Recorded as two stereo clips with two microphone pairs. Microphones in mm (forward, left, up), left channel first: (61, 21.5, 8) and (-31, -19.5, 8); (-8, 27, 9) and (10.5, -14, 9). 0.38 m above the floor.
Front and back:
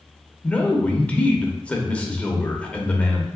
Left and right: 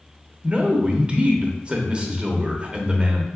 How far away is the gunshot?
I don't hear a gunshot.